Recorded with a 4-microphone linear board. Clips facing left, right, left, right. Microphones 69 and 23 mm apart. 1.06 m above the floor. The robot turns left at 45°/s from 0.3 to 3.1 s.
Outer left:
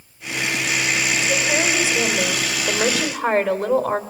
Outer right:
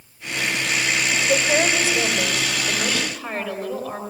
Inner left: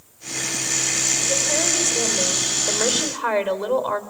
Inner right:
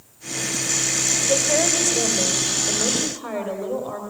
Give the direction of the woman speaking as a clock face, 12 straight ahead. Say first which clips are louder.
Outer right 4 dB, inner right 2 dB; 6 o'clock.